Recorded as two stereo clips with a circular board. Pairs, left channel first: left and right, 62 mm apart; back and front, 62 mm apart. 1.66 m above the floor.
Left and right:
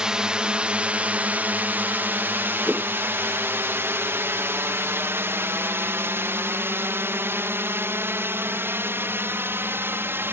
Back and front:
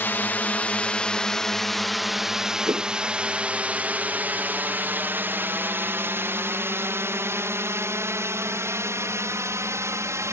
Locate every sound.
0.0 s a drone: 160° right; by 10.3 s 40° right
2.7 s a whoosh: 10° left